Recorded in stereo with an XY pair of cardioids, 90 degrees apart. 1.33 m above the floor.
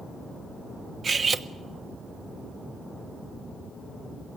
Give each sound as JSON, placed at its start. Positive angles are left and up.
{"t": 1.0, "sound": "cutlery clinking", "azimuth_deg": -45, "distance_m": 1.2}